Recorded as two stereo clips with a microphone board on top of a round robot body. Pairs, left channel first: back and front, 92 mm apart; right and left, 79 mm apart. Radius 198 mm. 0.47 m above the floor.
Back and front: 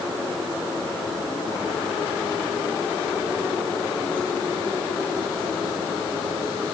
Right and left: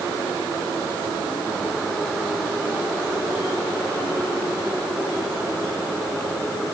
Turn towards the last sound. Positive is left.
No sound to turn to.